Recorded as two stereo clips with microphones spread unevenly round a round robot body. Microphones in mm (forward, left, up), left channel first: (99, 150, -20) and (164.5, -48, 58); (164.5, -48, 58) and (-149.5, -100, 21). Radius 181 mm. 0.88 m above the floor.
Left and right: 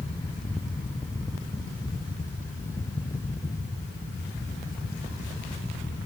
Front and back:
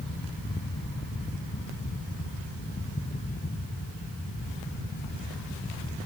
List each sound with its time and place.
Only background noise.